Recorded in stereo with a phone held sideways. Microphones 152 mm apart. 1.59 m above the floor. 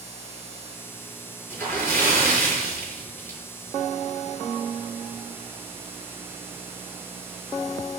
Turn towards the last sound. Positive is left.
turn(degrees=15)  # may be behind; listen again after turning